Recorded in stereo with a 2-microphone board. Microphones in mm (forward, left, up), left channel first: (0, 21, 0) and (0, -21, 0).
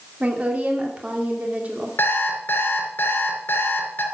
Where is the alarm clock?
55° left (ahead or behind), 3 m.